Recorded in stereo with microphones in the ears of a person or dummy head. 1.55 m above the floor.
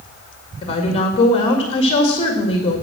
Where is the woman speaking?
35° left (ahead or behind), 2.0 m.